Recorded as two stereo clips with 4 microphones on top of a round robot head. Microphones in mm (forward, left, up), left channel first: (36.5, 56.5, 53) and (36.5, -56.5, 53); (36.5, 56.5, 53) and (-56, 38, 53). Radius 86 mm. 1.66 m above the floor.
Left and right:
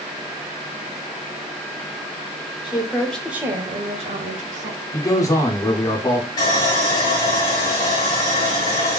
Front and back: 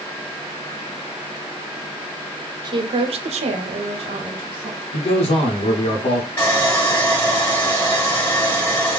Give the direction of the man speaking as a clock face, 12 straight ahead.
11 o'clock.